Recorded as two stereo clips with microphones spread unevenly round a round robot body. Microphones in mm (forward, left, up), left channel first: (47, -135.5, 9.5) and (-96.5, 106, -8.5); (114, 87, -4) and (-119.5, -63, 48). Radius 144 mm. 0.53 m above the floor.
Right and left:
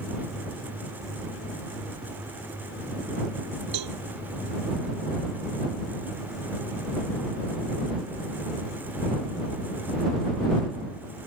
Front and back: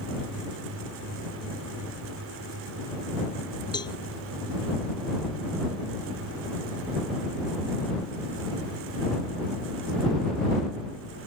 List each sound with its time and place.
3.7 s a cowbell: 110° left